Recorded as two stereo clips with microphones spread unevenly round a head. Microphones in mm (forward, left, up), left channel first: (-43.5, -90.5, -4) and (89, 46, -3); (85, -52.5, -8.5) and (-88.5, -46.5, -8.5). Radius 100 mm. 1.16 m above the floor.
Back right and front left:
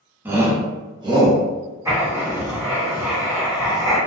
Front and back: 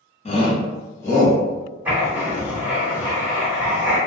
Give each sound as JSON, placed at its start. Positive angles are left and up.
{"t": 0.2, "sound": "a shout", "azimuth_deg": -30, "distance_m": 0.7}
{"t": 1.9, "sound": "writing", "azimuth_deg": 105, "distance_m": 0.9}